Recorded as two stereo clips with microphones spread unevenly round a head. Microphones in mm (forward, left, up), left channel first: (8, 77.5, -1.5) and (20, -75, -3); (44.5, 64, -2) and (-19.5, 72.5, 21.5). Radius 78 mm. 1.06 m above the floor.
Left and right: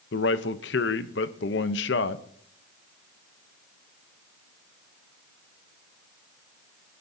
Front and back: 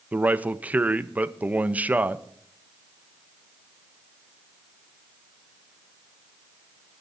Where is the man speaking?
100° left, 0.8 m.